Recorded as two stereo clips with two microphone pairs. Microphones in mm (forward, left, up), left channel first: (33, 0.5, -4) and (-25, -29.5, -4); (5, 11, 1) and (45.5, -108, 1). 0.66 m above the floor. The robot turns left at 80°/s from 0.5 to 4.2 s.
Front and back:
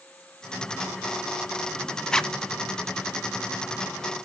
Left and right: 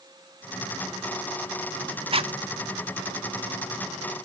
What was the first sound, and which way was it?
A zipper, 50° right.